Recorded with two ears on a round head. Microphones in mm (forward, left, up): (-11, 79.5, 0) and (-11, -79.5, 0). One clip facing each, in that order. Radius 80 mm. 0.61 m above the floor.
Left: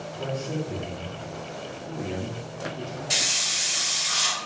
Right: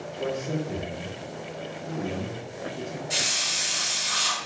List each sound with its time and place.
0.1 s a man speaking: 15° right (ahead or behind), 0.6 m
3.1 s a hiss: 70° left (ahead or behind), 0.6 m